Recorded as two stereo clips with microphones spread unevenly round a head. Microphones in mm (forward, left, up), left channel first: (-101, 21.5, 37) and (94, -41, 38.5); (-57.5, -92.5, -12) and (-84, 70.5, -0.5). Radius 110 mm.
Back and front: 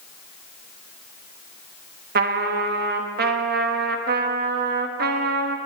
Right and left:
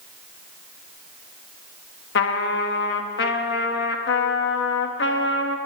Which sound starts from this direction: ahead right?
A trumpet, at 2.1 s.